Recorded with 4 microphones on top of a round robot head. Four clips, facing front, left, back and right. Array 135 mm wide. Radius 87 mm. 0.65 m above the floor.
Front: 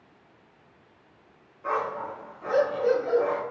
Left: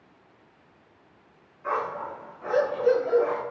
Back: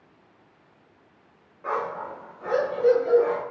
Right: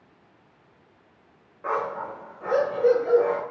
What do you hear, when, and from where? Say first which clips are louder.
1.6 s a dog barking: right 1 dB, even; 110° right, 0.9 m